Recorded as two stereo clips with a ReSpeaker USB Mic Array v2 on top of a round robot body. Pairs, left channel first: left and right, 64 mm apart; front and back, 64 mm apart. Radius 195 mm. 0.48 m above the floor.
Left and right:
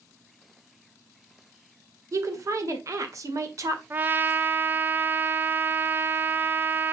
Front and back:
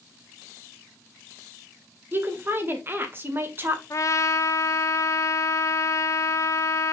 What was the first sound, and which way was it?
A woman speaking, 125° right.